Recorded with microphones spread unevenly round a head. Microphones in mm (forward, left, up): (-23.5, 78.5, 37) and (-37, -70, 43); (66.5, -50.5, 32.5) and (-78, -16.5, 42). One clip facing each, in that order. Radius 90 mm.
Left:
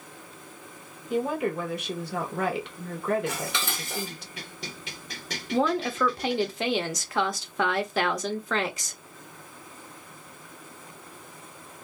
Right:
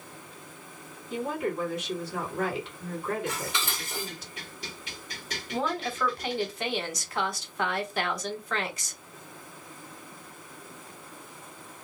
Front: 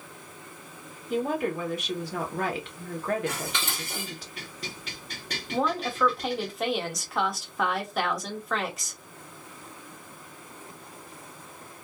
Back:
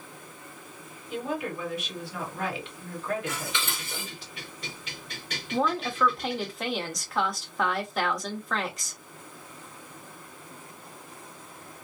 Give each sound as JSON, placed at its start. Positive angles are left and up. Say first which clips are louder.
{"t": 1.1, "sound": "a woman speaking", "louder": "left 4 dB, front 5 dB", "azimuth_deg": 40, "distance_m": 1.3}
{"t": 3.3, "sound": "dishes clattering", "louder": "left 1 dB, front 1 dB", "azimuth_deg": 50, "distance_m": 1.1}
{"t": 5.5, "sound": "a woman speaking", "louder": "left 6 dB, even", "azimuth_deg": 75, "distance_m": 0.9}